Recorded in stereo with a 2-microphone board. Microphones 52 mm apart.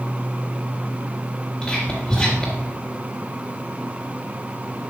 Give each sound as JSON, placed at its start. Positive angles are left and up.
{"t": 1.6, "sound": "whispering", "side_deg": 10, "distance_m": 1.6}